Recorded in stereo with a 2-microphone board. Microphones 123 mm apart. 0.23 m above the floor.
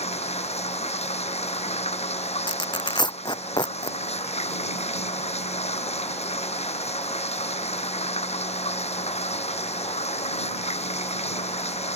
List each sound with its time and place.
0.0 s running water: 60° left (ahead or behind)
2.5 s tearing paper: 35° left (ahead or behind)